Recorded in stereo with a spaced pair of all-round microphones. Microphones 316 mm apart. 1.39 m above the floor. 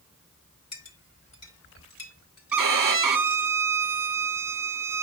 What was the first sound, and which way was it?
A clink, 55° left (ahead or behind).